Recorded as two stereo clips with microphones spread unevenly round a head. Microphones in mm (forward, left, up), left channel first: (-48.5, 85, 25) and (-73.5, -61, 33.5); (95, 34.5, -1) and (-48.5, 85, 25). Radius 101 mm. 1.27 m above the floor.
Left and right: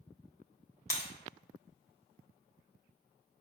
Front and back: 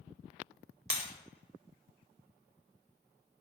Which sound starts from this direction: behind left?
Breaking glass, at 0.9 s.